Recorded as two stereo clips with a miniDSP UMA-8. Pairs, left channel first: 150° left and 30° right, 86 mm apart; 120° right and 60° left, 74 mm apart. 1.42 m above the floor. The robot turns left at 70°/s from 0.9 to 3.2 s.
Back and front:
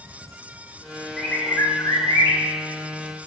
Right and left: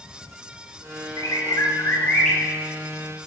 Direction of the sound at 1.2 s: 125° right.